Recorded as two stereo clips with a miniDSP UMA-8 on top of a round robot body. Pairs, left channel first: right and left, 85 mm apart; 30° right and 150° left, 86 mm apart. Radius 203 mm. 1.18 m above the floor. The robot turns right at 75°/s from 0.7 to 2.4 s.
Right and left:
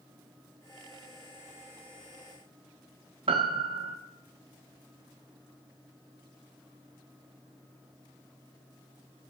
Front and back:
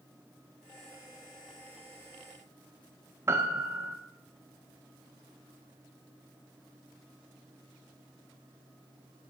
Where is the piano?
90° left, 0.5 m.